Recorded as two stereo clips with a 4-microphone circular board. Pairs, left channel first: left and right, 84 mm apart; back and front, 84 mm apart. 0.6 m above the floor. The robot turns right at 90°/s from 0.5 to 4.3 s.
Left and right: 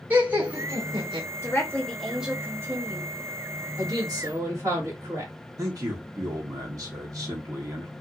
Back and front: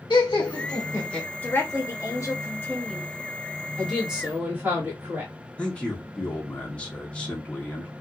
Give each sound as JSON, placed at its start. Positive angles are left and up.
{"t": 0.1, "sound": "laughter", "azimuth_deg": -145, "distance_m": 1.1}
{"t": 1.4, "sound": "a woman speaking", "azimuth_deg": 120, "distance_m": 1.0}
{"t": 3.8, "sound": "a woman speaking", "azimuth_deg": -105, "distance_m": 1.6}
{"t": 5.6, "sound": "a man speaking", "azimuth_deg": -110, "distance_m": 1.2}